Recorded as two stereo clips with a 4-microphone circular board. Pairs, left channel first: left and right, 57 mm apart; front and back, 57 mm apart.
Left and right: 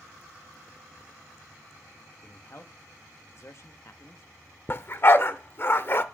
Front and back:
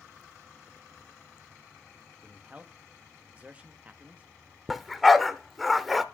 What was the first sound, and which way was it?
A man speaking, 120° left.